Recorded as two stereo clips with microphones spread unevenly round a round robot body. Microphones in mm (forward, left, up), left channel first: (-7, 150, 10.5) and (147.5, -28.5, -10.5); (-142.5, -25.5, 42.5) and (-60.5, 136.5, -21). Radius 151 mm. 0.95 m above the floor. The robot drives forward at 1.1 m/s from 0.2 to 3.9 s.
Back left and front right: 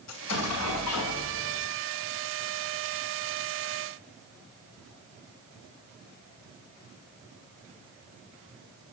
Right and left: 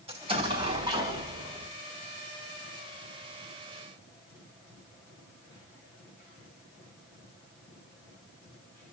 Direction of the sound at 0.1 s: 125° left.